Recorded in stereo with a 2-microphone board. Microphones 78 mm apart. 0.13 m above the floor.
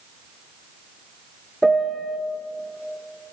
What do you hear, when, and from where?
1.6 s a piano: 5° left (ahead or behind), 0.7 m